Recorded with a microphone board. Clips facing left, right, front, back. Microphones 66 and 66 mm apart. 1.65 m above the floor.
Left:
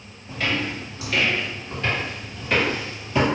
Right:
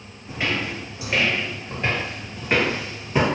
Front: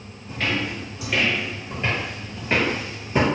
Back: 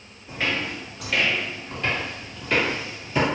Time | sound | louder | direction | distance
0.3 | footsteps | even, front 1 dB | 115° right | 1.7 m